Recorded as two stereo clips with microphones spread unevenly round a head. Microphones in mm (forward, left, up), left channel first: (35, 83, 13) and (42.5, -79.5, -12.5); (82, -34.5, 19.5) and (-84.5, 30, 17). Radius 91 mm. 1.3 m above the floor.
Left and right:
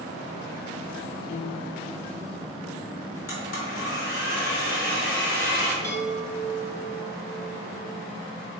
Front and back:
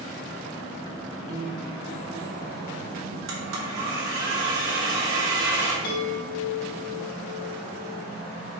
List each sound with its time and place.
1.3 s a piano: 95° left, 0.7 m
3.3 s a blender: 140° left, 2 m
5.8 s a chime: 20° left, 2 m